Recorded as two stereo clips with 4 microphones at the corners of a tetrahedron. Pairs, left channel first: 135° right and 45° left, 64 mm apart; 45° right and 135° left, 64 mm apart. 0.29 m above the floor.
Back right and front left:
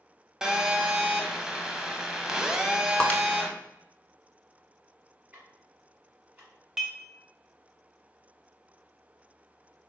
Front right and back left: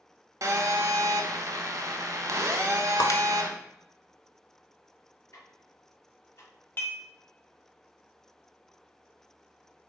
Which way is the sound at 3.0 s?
65° right.